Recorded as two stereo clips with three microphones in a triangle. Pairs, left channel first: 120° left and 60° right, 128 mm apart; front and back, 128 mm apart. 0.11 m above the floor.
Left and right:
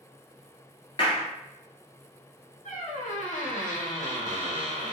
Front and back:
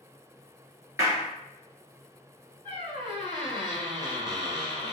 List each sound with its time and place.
1.0 s a clap: 125° left, 1.4 m
2.6 s a squeak: 130° left, 1.5 m